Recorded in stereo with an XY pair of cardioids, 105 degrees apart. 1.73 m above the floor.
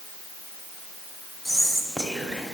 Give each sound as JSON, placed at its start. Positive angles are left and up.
{"t": 1.4, "sound": "whispering", "azimuth_deg": -10, "distance_m": 1.1}